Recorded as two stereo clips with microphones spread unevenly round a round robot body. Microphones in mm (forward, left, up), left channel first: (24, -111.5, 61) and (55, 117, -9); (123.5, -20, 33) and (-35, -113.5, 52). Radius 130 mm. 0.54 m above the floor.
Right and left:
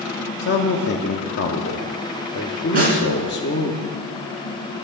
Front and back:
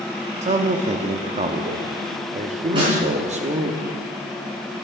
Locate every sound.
0.4 s a man speaking: 130° right, 1.1 m
2.7 s a snare drum: 140° left, 4.5 m